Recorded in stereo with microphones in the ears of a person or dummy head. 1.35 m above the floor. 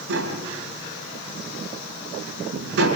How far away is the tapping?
About 5 m.